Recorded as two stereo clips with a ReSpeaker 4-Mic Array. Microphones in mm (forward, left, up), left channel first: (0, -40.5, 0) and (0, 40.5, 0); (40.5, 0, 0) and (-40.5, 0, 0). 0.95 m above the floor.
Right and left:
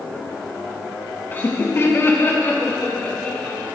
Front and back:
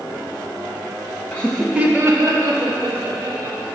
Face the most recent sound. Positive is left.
turn(degrees=-165)